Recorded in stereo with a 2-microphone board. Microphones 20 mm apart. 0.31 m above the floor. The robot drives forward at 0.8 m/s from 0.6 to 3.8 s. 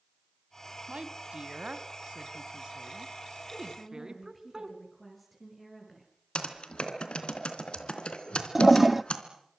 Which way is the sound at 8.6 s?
10° right (ahead or behind).